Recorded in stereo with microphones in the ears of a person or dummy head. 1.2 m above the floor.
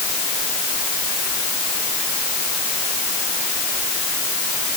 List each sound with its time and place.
Only background noise.